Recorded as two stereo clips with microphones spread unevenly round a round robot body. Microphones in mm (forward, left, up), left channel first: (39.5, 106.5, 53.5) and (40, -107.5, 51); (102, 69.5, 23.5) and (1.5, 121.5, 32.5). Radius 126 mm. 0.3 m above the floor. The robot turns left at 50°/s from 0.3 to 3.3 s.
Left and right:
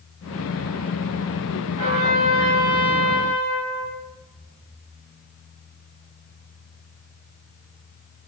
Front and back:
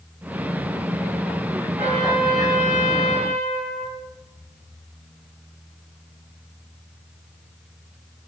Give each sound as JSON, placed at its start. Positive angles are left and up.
{"t": 1.8, "sound": "a trumpet", "azimuth_deg": -145, "distance_m": 2.0}